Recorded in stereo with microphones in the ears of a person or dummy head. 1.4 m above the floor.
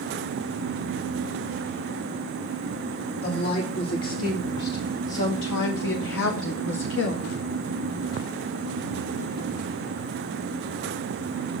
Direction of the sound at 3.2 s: 45° left (ahead or behind).